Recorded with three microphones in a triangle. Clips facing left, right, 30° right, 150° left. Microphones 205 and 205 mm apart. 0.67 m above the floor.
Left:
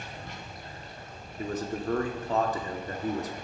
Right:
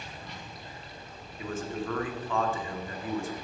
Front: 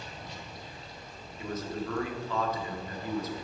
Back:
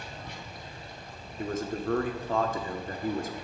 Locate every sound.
0.0 s running water: 125° left, 2.5 m
1.4 s a man speaking: 130° left, 1.6 m